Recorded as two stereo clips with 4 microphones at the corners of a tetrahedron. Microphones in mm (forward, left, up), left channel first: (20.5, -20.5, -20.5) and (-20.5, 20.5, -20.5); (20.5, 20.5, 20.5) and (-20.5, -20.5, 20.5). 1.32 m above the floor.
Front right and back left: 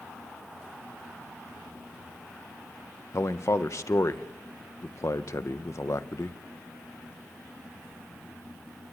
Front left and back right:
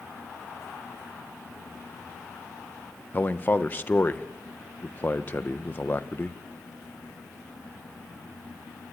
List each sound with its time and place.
3.1 s a man speaking: 15° right, 0.9 m